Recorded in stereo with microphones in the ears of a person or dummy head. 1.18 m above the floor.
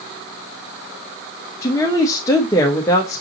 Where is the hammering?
I don't hear hammering.